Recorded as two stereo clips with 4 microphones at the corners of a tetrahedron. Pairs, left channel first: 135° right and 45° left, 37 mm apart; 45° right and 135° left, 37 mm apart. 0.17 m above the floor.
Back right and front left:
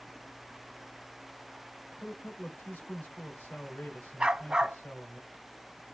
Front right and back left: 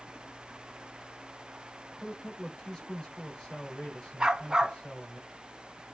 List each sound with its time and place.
2.0 s a man speaking: 120° right, 2.5 m
4.2 s a dog barking: 85° left, 0.5 m